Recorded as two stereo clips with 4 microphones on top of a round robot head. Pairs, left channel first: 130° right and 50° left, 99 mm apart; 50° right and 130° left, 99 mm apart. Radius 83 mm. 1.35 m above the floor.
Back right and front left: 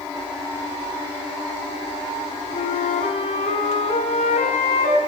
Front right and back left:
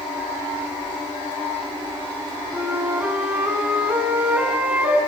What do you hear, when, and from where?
2.5 s a flute: 150° right, 2.5 m